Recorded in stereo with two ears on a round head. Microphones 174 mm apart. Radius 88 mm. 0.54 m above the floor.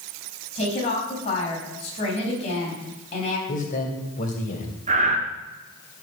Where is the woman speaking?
30° left (ahead or behind), 4 m.